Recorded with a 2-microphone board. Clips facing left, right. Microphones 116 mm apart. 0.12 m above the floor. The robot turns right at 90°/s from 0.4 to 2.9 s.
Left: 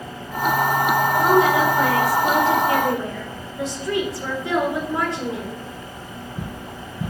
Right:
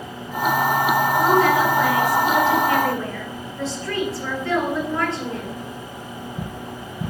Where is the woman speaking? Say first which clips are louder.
Left 1 dB; straight ahead, 1.5 m; by 5.7 s 155° left, 1.5 m.